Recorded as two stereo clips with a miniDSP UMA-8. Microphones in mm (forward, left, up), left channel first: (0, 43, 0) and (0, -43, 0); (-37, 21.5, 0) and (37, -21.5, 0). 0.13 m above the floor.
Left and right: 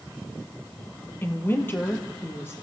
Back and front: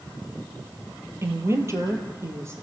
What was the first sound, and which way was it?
A woman speaking, 25° left.